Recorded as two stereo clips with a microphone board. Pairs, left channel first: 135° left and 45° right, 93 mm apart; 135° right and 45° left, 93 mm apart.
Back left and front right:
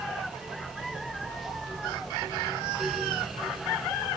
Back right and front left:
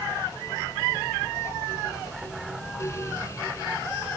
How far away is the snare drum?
I don't hear a snare drum.